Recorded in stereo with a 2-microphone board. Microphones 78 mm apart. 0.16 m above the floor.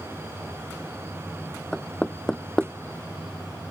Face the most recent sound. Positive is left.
turn(degrees=10)  # may be behind; listen again after turning